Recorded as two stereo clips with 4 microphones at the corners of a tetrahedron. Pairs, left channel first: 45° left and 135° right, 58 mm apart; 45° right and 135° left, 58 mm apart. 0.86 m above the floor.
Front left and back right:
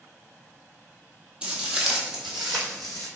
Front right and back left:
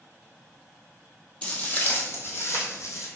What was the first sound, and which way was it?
Footsteps, 90° right.